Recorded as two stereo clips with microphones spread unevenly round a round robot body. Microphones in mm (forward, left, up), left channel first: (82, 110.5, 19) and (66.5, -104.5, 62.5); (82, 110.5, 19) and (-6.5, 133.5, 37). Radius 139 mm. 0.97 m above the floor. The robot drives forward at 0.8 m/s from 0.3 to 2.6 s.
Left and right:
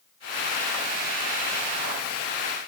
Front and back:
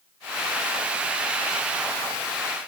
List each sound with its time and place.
Only background noise.